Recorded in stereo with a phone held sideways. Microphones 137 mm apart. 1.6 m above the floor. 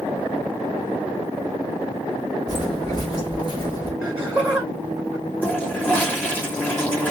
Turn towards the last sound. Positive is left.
turn(degrees=15)  # may be behind; listen again after turning